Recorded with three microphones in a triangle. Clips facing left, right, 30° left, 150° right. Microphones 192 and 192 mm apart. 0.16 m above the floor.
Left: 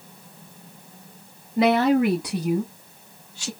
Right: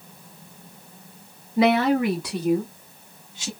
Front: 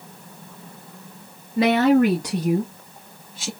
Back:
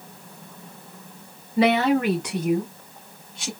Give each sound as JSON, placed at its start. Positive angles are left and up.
{"t": 1.6, "sound": "a woman speaking", "azimuth_deg": 45, "distance_m": 1.7}